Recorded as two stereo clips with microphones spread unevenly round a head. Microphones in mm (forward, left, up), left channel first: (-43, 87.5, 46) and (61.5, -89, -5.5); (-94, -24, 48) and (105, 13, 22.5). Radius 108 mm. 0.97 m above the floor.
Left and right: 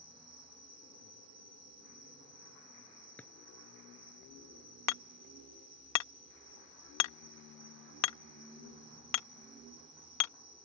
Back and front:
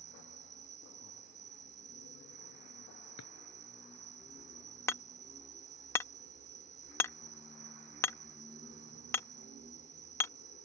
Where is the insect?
10° right.